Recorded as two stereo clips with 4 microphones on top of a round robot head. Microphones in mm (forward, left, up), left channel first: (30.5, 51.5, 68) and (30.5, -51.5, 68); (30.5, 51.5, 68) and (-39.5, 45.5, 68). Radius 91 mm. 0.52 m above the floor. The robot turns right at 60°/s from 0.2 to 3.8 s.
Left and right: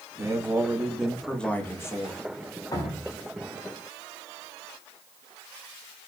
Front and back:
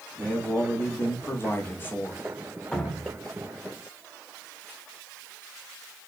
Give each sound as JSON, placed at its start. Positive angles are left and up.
{"t": 0.2, "sound": "a man speaking", "azimuth_deg": -55, "distance_m": 0.9}
{"t": 2.7, "sound": "dripping", "azimuth_deg": 70, "distance_m": 0.8}